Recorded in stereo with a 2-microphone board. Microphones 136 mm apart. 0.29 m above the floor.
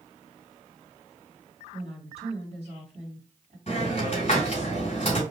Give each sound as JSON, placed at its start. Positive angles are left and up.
{"t": 1.7, "sound": "a woman speaking", "side_deg": -50, "distance_m": 2.0}
{"t": 3.7, "sound": "a hiss", "side_deg": 50, "distance_m": 3.0}